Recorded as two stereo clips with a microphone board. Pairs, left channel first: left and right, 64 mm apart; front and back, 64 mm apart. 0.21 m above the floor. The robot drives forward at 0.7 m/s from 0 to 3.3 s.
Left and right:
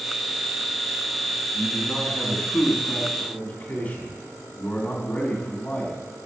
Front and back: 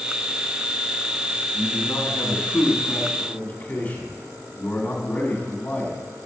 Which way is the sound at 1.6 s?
20° left.